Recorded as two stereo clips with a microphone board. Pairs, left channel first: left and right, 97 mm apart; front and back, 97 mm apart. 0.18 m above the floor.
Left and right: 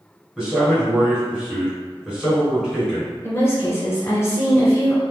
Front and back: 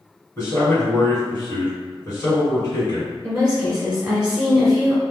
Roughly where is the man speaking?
Ahead.